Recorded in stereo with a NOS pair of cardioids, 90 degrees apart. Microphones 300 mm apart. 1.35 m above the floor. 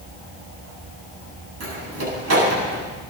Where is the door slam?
55° right, 9 m.